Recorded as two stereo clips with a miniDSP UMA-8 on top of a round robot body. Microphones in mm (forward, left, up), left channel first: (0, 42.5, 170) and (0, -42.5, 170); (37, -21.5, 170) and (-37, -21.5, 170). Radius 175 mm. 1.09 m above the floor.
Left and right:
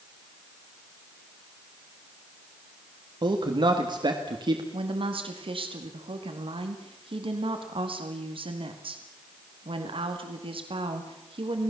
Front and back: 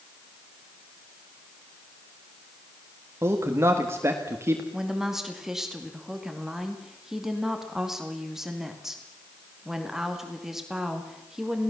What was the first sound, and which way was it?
A man speaking, 125° right.